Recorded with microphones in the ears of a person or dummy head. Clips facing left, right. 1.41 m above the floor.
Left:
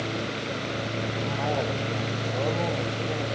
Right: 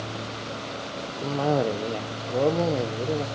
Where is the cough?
55° right (ahead or behind), 0.7 m.